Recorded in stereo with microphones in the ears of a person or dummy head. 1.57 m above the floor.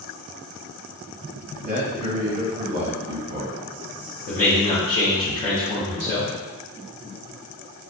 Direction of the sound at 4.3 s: 40° left (ahead or behind).